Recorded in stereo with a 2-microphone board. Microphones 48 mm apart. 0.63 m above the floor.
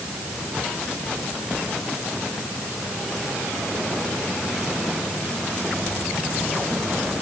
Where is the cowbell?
No cowbell in this recording.